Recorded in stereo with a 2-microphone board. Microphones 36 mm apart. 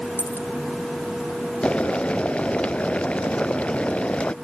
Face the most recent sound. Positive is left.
turn(degrees=30)  # may be behind; listen again after turning